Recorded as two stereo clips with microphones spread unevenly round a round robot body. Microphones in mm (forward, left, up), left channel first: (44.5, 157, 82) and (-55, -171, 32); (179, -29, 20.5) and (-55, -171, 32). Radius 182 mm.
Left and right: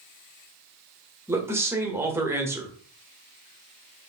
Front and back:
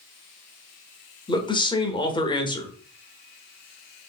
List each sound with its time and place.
1.3 s a man speaking: 35° right, 1.1 m